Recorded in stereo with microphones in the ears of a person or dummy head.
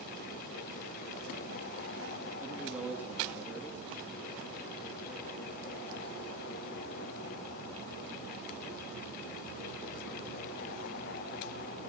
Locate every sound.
2.4 s a man speaking: centre (ahead or behind), 3 m